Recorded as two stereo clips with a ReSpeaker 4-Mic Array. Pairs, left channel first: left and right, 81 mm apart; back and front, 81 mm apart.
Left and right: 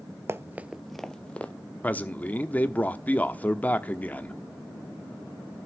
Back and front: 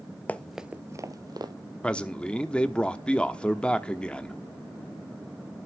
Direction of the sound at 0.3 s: 120° right.